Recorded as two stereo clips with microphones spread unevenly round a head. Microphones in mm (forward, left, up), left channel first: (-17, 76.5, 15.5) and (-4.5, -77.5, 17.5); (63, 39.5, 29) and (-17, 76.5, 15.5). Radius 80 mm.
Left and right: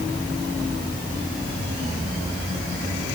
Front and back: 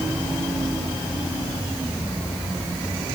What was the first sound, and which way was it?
Only background noise.